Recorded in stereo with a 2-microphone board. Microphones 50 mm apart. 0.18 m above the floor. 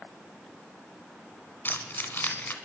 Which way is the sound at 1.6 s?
40° left (ahead or behind).